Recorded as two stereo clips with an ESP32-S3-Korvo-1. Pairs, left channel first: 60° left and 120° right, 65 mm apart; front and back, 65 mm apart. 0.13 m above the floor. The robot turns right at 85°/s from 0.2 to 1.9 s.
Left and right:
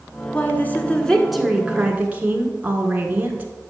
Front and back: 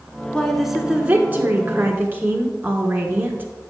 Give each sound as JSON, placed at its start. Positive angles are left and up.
{"t": 0.3, "sound": "a woman speaking", "azimuth_deg": 65, "distance_m": 1.3}